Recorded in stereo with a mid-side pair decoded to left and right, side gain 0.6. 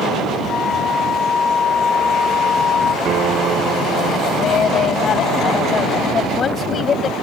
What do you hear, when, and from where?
0.5 s a flute: 30° left
3.0 s a guitar: 50° right
4.4 s a woman speaking: 35° left